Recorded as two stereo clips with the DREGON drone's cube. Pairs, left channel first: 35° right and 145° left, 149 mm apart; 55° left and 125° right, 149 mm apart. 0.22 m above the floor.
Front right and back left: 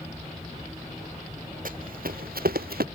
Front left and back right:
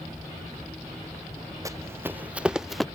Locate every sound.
1.6 s running footsteps: 165° left; by 2.9 s 145° left